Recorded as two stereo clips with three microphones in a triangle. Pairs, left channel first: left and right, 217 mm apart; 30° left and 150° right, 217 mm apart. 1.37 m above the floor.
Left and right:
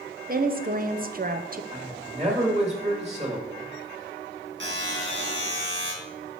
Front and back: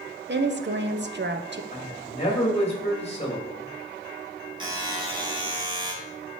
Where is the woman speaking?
130° right, 0.7 m.